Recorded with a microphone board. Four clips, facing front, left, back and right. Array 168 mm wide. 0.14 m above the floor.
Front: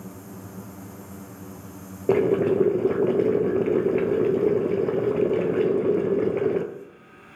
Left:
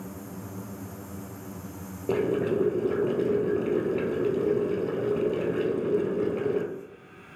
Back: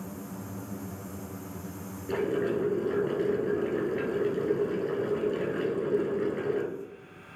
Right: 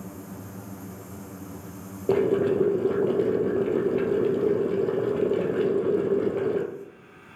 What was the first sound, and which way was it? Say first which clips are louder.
Boiling: right 4 dB, front 9 dB; 20° right.